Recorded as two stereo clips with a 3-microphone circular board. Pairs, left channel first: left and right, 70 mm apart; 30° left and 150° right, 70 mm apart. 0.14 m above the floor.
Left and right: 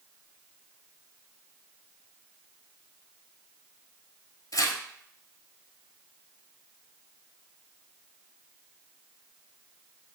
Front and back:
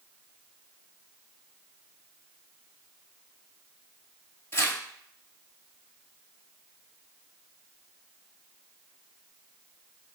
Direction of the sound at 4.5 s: 75° left.